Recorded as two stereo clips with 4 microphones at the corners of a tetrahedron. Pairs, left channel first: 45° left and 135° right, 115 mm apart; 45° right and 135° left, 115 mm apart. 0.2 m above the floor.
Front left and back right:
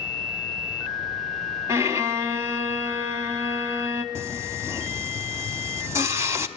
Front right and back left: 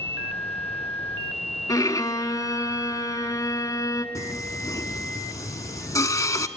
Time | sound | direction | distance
1.7 | a violin | 85° right | 0.9 m
4.2 | singing | 80° right | 0.8 m